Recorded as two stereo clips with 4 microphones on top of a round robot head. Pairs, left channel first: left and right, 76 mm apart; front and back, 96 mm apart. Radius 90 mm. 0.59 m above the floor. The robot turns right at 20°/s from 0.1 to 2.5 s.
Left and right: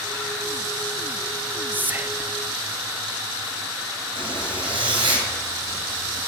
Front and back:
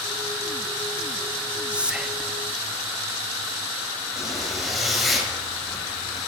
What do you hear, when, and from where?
1.7 s whispering: 120° right, 0.9 m; by 2.3 s 105° right, 0.9 m
4.2 s a zipper: 90° right, 4 m